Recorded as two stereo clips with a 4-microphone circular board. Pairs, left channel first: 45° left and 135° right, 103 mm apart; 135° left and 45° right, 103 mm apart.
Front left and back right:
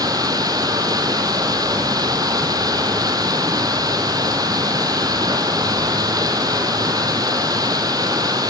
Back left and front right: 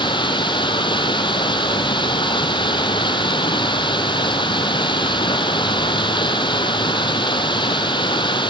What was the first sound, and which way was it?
Running water, 175° left.